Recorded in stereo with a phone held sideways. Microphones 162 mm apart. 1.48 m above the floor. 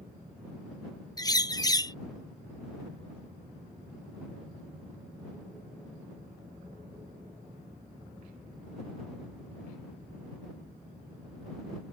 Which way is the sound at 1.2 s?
25° left (ahead or behind).